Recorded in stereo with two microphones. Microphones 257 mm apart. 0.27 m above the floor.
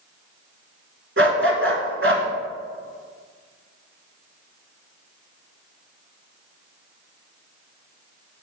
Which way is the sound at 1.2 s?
55° right (ahead or behind).